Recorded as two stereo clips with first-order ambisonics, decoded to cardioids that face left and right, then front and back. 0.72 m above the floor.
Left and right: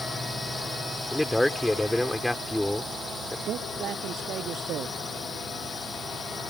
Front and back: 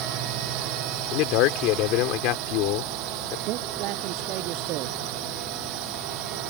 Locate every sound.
0.0 s a drone: 170° left
1.1 s a man speaking: 5° left
3.5 s a man speaking: 140° right